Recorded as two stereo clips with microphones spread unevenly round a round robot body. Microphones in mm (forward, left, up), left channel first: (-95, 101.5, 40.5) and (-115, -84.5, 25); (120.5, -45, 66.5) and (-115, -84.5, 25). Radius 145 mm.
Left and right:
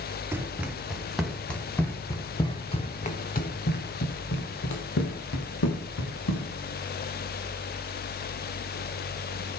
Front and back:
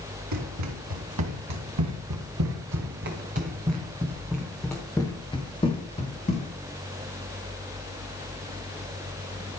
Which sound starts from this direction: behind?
Running footsteps, at 0.3 s.